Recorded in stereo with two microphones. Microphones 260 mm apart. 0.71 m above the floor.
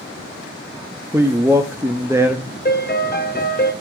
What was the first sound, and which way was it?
A man speaking, 10° right (ahead or behind).